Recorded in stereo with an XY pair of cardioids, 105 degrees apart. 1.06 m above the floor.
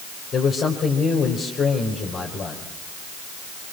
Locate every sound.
0.3 s a man speaking: 50° left, 4 m